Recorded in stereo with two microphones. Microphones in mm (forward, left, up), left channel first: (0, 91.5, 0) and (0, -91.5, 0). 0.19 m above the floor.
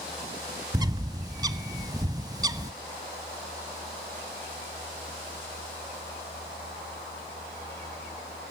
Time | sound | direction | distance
0.7 | a bird | 20° right (ahead or behind) | 0.6 m